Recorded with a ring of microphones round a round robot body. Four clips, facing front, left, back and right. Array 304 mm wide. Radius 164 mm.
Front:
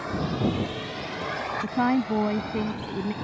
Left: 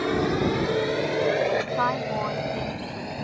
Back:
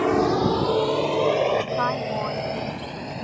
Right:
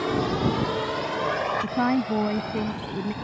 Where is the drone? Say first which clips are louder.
Left 1 dB, back 8 dB; 170° left; by 3.2 s 135° left.